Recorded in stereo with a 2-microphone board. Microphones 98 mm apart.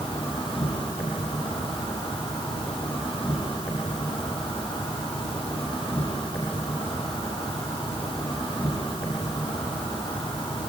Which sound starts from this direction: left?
An insect, at 0.0 s.